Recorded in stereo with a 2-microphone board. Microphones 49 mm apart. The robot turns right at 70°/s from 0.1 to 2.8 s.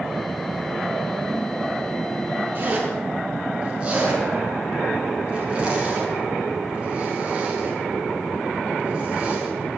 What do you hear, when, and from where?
2.5 s a zipper: 40° right (ahead or behind), 5 m; by 9.5 s 25° right (ahead or behind), 5 m